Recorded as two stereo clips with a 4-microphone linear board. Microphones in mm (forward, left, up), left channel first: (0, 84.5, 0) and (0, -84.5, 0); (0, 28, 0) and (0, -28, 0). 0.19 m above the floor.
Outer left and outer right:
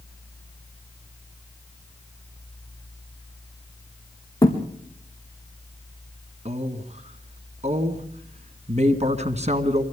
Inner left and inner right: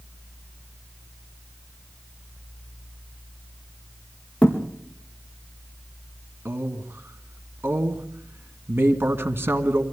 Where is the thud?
20° left (ahead or behind), 4 m.